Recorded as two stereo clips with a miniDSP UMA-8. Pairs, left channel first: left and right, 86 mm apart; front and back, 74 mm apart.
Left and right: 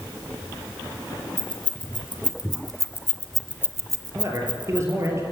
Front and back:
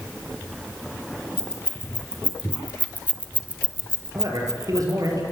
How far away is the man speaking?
About 5.5 m.